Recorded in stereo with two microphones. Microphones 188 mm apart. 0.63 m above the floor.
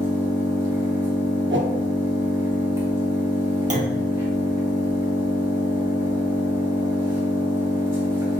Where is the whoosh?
70° right (ahead or behind), 0.5 m.